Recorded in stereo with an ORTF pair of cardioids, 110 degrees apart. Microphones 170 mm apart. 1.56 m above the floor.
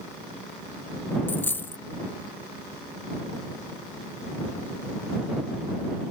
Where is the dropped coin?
10° left.